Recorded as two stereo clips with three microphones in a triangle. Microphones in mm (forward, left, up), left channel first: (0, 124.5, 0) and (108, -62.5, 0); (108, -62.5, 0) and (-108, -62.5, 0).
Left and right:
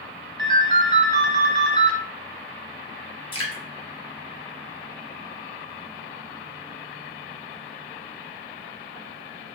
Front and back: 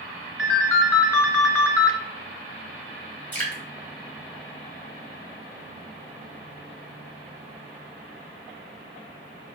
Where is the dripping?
75° left, 1.1 m.